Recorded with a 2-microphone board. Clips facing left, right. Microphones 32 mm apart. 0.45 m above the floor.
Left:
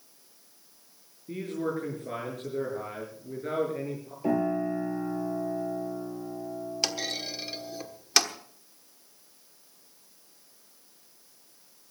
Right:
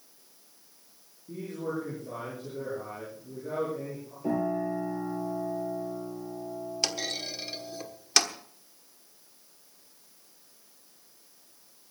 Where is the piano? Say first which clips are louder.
Left 2 dB; 40° left (ahead or behind), 7 m.